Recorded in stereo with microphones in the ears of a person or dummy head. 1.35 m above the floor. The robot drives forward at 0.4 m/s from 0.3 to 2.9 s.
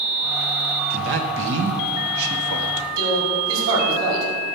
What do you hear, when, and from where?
0.9 s a man speaking: 55° right (ahead or behind), 1.2 m; by 2.9 s 70° right (ahead or behind), 1.0 m
3.0 s a man speaking: 65° right (ahead or behind), 5 m